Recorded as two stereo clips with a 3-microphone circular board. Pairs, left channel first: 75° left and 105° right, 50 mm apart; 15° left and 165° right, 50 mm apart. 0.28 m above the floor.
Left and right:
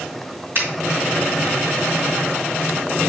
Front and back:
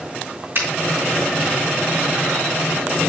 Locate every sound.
0.6 s a finger snap: 140° right, 3 m